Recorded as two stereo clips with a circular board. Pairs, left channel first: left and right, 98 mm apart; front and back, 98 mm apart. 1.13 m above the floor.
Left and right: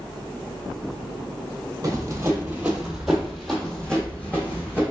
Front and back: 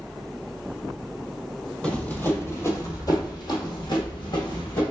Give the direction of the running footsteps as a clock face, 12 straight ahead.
2 o'clock.